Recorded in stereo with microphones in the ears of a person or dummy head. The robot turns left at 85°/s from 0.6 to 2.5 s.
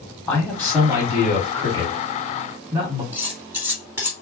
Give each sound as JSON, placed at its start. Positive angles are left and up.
{"t": 0.3, "sound": "a man speaking", "azimuth_deg": 5, "distance_m": 1.5}
{"t": 3.1, "sound": "cutlery clinking", "side_deg": -15, "distance_m": 1.9}